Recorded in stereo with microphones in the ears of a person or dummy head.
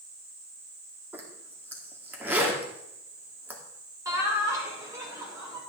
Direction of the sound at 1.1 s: 10° right (ahead or behind).